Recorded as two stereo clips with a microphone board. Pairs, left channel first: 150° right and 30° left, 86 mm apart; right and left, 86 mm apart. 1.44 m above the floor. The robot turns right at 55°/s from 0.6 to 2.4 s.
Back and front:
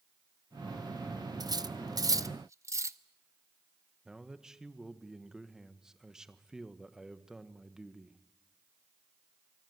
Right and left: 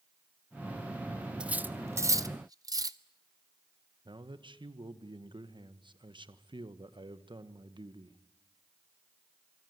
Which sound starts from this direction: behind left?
A man speaking, at 4.0 s.